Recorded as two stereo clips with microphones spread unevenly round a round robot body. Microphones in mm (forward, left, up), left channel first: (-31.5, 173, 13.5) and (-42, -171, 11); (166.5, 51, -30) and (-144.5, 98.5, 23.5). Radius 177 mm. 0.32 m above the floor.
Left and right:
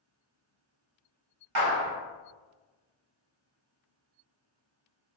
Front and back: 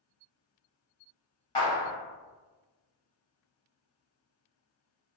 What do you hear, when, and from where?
1.6 s a clap: 70° right, 1.3 m